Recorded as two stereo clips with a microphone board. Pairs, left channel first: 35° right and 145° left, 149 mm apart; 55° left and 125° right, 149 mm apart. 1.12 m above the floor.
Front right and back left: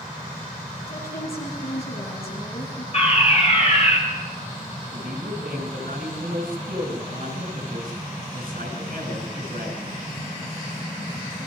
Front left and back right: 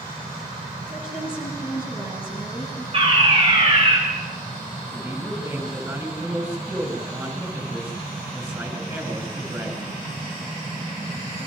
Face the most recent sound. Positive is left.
turn(degrees=165)